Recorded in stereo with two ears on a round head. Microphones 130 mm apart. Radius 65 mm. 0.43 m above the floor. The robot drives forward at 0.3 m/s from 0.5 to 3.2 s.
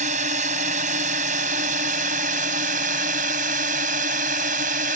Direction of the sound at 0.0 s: 55° right (ahead or behind).